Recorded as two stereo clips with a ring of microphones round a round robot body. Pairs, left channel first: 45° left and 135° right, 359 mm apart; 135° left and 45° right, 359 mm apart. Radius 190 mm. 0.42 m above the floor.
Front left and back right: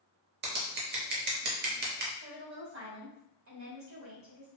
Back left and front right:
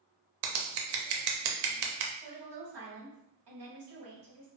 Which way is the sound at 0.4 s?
70° right.